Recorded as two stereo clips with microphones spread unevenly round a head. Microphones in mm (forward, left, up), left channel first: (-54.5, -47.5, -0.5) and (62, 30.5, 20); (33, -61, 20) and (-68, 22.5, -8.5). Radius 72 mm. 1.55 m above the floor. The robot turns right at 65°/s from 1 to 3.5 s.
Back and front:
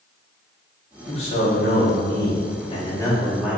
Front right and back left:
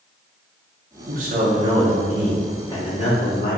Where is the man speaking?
155° left, 1.6 m; by 3.6 s 50° right, 1.6 m.